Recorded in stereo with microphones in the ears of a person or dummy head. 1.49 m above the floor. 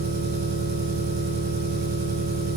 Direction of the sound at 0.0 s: 50° right (ahead or behind).